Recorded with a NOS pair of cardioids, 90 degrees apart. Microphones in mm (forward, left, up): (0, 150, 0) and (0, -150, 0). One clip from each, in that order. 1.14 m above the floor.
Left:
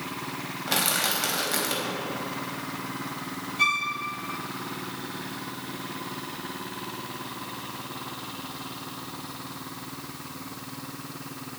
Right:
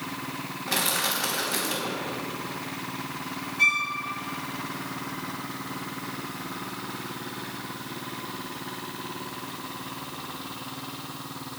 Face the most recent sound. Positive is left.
turn(degrees=25)